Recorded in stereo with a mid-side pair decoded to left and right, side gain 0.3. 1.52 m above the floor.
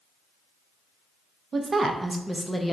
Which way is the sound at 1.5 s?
55° right.